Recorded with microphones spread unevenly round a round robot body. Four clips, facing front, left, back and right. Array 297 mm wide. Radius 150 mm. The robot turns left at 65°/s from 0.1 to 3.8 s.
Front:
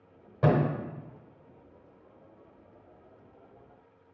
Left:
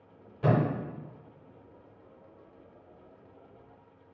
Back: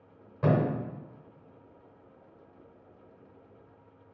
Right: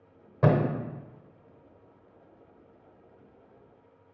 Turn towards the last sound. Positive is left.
turn(degrees=65)